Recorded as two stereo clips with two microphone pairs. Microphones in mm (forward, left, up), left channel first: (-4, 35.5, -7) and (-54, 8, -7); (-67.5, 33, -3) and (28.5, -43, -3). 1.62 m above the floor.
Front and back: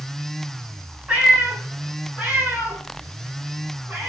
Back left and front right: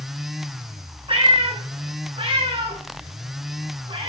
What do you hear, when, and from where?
1.1 s a cat meowing: 80° right, 6 m; by 4.1 s 85° right, 7.5 m